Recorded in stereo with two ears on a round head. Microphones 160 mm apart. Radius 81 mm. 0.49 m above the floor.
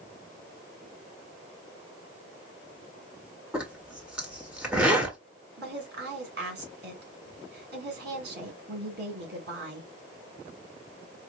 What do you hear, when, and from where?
3.5 s a zipper: 5° right (ahead or behind), 1.3 m
5.6 s a woman speaking: 60° right (ahead or behind), 2.5 m